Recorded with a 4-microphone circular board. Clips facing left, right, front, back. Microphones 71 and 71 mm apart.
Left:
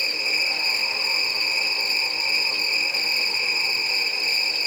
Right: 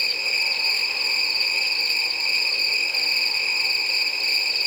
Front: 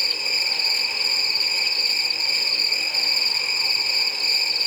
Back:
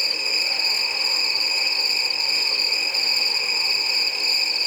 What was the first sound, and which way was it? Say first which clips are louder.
An insect: even, even; 20° left.